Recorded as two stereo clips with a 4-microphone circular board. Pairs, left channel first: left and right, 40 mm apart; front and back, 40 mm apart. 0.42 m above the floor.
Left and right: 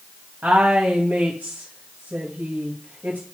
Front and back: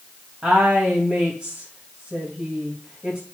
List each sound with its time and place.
0.4 s a woman speaking: 135° right, 2 m